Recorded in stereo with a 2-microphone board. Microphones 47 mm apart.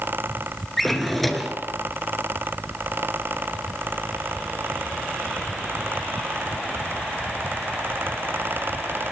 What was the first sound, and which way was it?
A drawer, 5° left (ahead or behind).